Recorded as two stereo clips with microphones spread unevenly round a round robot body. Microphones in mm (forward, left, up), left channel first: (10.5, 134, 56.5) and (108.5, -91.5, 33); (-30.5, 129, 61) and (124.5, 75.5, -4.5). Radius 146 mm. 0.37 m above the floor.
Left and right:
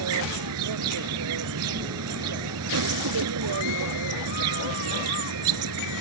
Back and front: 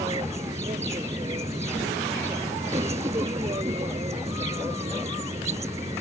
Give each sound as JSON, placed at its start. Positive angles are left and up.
{"t": 0.0, "sound": "an insect", "azimuth_deg": -95}